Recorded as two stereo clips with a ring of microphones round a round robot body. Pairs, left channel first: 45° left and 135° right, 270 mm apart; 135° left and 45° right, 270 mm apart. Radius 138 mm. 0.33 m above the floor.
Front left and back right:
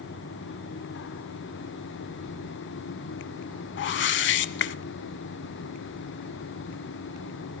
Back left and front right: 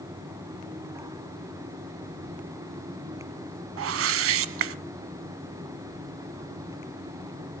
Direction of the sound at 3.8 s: 5° right.